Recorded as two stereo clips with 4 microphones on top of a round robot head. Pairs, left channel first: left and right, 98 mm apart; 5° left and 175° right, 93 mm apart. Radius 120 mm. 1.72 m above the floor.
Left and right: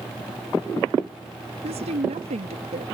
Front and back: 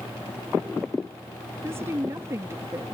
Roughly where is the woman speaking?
Right.